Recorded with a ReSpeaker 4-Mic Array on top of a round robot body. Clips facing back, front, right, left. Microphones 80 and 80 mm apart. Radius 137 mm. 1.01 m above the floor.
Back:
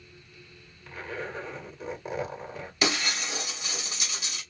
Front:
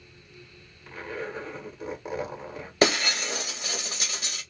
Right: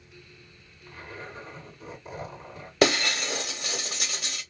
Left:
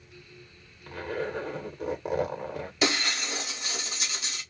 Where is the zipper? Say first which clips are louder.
Front 1 dB, left 9 dB; 85° left, 1.2 m.